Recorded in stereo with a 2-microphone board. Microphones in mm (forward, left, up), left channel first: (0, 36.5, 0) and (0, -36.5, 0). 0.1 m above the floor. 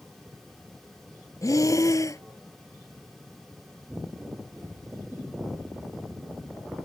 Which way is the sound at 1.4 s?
50° left (ahead or behind).